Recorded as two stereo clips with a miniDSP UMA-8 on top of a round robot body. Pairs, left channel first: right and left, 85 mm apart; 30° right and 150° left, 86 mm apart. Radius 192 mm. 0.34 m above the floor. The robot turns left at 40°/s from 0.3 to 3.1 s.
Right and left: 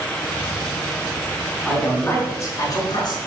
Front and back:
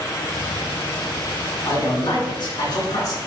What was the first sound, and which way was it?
A man speaking, 10° right.